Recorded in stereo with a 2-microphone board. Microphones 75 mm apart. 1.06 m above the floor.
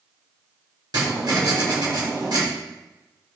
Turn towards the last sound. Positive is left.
turn(degrees=-65)  # may be behind; listen again after turning